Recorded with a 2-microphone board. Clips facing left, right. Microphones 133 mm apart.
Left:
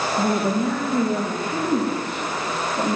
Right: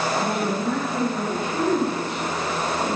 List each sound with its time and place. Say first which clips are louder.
0.2 s a woman speaking: left 3 dB; 65° left (ahead or behind), 5.5 m